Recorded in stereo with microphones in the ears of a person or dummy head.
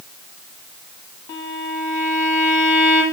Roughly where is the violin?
Left.